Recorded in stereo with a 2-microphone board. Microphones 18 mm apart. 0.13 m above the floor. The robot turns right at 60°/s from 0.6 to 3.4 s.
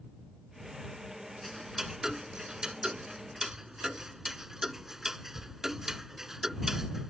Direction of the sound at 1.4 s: 10° right (ahead or behind).